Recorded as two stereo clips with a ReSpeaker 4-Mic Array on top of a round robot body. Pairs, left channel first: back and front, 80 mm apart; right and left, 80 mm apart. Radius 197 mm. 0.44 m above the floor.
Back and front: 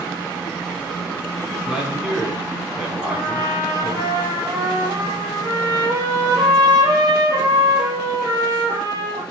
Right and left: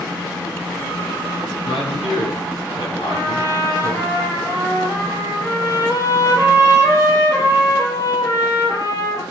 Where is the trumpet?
40° right, 9 m.